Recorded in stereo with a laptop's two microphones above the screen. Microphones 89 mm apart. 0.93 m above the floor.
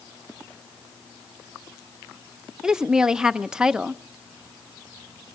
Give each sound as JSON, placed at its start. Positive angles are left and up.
{"t": 2.6, "sound": "a woman speaking", "side_deg": -10, "distance_m": 0.6}